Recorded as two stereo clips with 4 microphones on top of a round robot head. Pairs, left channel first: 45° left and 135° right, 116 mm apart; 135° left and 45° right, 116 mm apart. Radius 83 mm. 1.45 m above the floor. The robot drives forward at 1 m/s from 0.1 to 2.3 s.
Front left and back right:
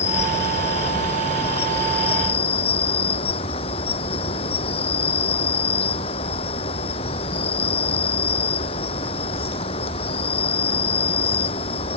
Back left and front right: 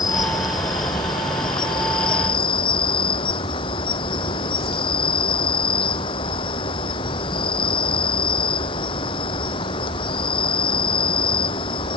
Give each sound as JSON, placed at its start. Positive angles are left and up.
{"t": 0.0, "sound": "an insect", "azimuth_deg": 75}